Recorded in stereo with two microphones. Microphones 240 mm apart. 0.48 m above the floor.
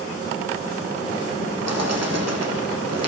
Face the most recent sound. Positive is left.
turn(degrees=-80)